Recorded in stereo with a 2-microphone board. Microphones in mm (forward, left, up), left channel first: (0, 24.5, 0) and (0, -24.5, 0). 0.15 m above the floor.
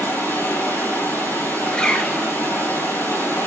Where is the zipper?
20° left (ahead or behind), 1.6 m.